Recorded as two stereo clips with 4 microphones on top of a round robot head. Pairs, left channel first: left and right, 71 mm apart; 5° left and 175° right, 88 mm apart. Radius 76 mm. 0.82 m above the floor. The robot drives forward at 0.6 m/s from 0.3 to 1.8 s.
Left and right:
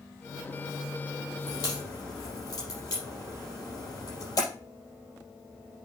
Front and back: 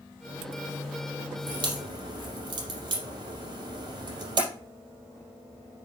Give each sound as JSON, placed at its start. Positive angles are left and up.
{"t": 1.5, "sound": "a crack", "azimuth_deg": 145, "distance_m": 4.0}